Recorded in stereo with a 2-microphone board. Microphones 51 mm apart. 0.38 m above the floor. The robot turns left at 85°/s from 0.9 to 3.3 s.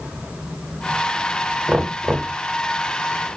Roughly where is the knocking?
Right.